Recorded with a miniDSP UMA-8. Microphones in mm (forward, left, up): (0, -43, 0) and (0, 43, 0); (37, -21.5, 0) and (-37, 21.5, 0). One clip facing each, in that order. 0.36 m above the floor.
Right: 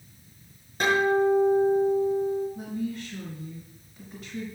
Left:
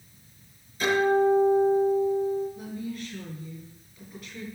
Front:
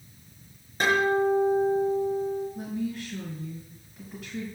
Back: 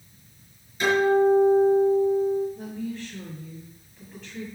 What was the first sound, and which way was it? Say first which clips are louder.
A guitar: even, back 4 dB; 60° right.